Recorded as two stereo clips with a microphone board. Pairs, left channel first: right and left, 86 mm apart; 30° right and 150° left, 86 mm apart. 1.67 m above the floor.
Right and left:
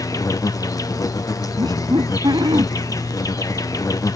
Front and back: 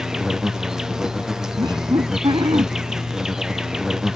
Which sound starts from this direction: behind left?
Laughter, at 1.6 s.